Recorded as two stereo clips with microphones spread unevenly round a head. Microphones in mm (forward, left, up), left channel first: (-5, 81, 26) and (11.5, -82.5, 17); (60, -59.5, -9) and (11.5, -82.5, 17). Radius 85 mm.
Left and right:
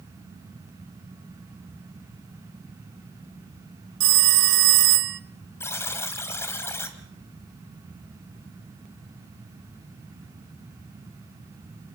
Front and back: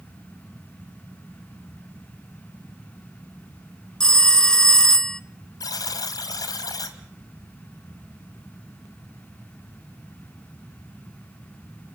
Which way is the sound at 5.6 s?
30° left.